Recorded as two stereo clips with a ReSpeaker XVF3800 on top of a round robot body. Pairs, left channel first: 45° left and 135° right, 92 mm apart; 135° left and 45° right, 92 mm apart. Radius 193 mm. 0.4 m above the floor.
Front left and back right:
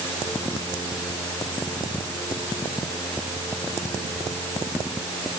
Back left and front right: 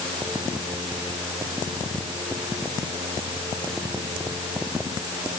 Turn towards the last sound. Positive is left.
No sound to turn to.